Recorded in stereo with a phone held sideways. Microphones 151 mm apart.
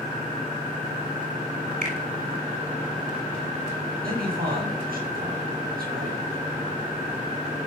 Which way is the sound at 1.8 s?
65° right (ahead or behind).